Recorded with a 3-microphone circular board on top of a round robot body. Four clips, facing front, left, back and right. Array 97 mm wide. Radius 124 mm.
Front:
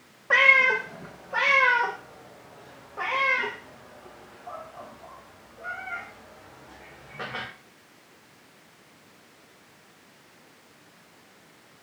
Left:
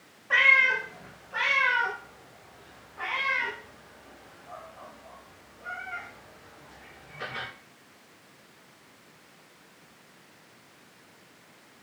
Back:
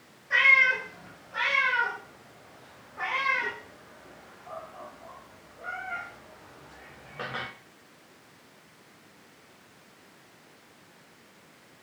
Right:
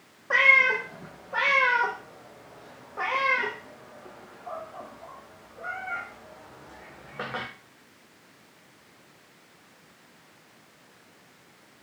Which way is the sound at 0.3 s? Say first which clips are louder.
Right 1 dB, front 3 dB; 30° right.